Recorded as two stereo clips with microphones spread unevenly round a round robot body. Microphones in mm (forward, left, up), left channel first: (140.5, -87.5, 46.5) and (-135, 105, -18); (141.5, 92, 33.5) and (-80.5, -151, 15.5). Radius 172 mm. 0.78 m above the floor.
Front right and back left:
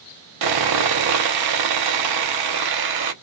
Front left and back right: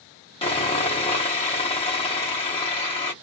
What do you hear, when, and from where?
0.4 s sawing: 120° left, 0.7 m